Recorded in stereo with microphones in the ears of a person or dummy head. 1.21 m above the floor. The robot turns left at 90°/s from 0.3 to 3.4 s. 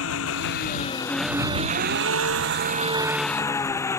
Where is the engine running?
80° left; by 4.0 s 160° left.